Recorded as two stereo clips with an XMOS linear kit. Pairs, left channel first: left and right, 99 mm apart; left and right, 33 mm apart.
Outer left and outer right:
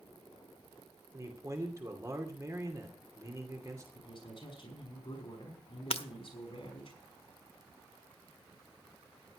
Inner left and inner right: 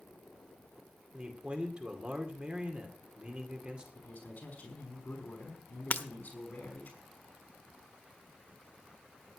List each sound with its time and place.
1.1 s a man speaking: 35° right (ahead or behind), 2.5 m
4.0 s a man speaking: 55° left (ahead or behind), 5.5 m
5.9 s breaking glass: 80° left, 1.1 m